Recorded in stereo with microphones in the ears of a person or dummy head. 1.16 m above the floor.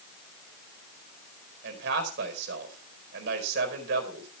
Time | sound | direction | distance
1.6 | a man speaking | 65° right (ahead or behind) | 4.5 m